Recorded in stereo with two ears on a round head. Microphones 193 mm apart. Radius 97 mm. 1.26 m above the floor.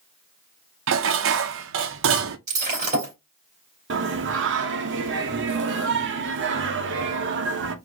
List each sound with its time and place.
0.9 s dishes clattering: 65° right (ahead or behind), 0.6 m
2.5 s breaking glass: 35° right (ahead or behind), 3 m
3.9 s singing: 60° right (ahead or behind), 0.9 m